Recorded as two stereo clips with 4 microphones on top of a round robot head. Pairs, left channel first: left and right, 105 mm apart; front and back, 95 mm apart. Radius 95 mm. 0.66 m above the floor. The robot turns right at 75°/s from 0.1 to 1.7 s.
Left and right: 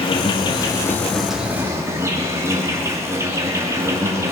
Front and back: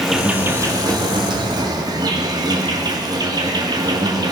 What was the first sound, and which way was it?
An insect, 95° left.